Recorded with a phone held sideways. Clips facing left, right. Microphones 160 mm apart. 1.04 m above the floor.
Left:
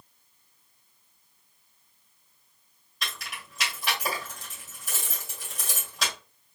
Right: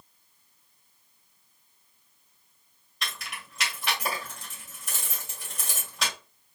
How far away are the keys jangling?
About 2 m.